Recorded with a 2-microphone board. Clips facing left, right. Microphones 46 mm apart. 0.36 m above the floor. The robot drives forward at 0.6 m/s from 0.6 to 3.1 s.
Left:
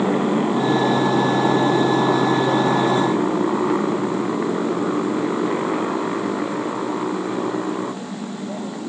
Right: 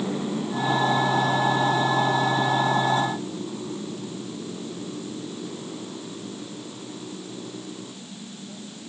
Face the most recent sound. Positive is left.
turn(degrees=85)